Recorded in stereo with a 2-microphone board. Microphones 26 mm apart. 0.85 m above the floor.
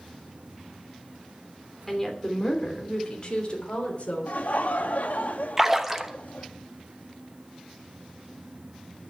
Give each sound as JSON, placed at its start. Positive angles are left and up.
{"t": 1.9, "sound": "a woman speaking", "side_deg": 5, "distance_m": 2.5}
{"t": 4.3, "sound": "laughter", "side_deg": 65, "distance_m": 1.1}
{"t": 5.6, "sound": "a splash", "side_deg": -15, "distance_m": 1.0}